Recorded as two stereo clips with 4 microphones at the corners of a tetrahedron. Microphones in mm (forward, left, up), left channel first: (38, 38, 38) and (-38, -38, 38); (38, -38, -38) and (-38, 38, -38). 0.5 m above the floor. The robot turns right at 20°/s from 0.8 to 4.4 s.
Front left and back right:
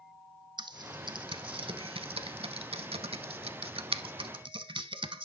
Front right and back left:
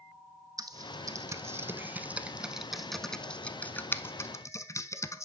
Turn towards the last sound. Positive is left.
turn(degrees=-105)